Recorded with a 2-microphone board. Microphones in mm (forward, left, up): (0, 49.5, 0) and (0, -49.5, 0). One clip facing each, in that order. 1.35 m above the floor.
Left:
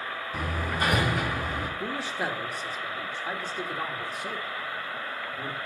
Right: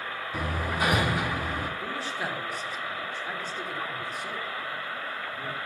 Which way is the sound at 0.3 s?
5° right (ahead or behind).